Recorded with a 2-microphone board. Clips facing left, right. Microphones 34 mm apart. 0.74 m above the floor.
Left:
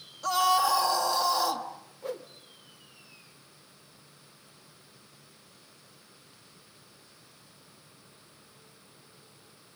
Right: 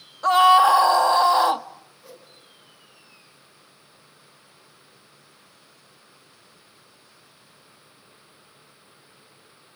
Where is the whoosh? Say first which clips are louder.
Left 13 dB; 60° left (ahead or behind), 1.7 m.